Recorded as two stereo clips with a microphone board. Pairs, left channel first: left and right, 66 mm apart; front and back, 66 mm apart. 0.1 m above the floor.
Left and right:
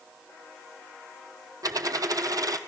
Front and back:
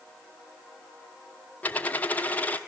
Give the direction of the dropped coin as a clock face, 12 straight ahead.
2 o'clock.